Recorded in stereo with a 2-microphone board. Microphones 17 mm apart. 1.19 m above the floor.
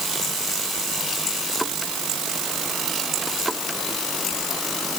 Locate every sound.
Only background noise.